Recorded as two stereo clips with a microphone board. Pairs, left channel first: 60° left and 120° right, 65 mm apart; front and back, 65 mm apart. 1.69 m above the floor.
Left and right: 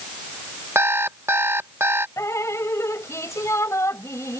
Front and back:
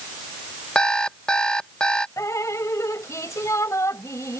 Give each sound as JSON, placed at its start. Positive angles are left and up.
{"t": 0.8, "sound": "an alarm clock", "azimuth_deg": -75}
{"t": 2.2, "sound": "dripping", "azimuth_deg": 25}